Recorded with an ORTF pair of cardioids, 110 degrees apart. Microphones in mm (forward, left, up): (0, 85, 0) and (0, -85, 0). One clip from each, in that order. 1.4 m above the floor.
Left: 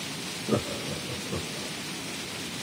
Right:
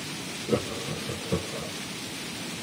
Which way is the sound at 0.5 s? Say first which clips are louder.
Right 1 dB; 10° left.